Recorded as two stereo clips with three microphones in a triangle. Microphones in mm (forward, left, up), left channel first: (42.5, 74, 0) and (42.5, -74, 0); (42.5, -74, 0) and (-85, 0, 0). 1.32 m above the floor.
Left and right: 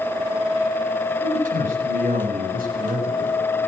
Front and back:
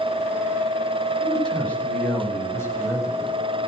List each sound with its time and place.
1.2 s a man speaking: 115° right, 8 m; by 3.4 s 95° right, 7.5 m